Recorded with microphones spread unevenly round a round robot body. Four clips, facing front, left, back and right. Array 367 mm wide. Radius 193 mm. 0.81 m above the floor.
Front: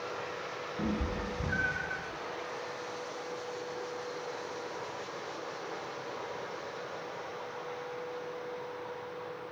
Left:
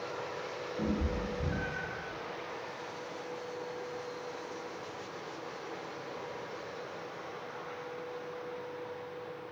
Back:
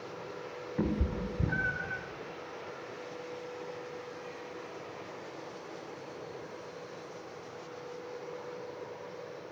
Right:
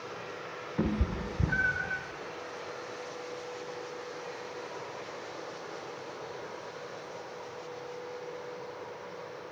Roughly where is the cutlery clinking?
I don't hear cutlery clinking.